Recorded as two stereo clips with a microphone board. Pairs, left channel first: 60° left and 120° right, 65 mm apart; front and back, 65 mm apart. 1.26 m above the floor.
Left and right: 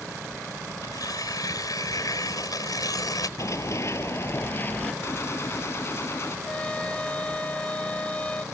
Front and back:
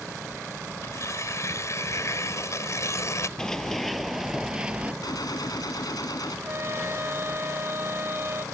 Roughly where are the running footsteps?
Left.